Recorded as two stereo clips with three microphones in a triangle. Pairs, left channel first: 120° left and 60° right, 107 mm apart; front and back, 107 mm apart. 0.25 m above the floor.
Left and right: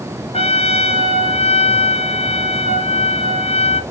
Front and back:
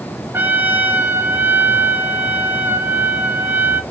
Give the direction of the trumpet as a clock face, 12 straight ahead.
8 o'clock.